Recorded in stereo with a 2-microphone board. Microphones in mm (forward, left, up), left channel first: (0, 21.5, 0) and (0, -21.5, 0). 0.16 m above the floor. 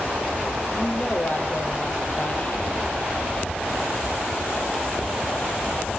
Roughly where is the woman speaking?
Left.